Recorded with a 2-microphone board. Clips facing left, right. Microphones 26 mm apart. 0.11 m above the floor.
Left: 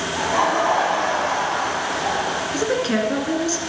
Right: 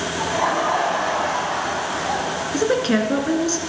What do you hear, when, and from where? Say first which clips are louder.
0.2 s laughter: left 2 dB; 40° left (ahead or behind), 7.5 m; by 2.4 s 50° left (ahead or behind), 7 m
2.5 s a woman speaking: right 3 dB; 10° right (ahead or behind), 1.5 m